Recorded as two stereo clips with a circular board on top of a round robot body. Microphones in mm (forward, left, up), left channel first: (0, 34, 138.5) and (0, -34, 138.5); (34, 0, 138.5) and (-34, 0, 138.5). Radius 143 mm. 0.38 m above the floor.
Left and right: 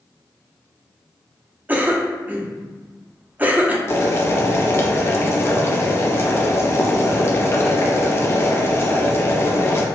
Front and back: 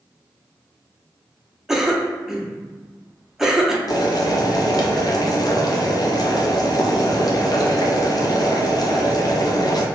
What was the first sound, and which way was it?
A cough, 100° right.